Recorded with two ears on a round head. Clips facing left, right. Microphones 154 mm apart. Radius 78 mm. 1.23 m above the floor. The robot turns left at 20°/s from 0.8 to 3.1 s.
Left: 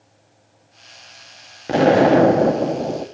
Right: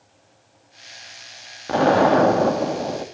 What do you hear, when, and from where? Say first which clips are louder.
1.7 s an explosion: left 3 dB; 25° left (ahead or behind), 0.7 m; by 3.1 s 20° left (ahead or behind), 0.7 m